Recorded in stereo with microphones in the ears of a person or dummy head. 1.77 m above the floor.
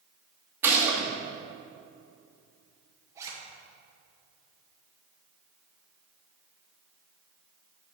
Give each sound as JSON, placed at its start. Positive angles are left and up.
{"t": 0.6, "sound": "a gunshot", "side_deg": -10, "distance_m": 1.9}
{"t": 3.1, "sound": "a zipper", "side_deg": -15, "distance_m": 1.9}